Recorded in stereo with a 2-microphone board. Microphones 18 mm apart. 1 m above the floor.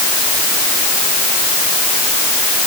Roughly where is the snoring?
I don't hear snoring.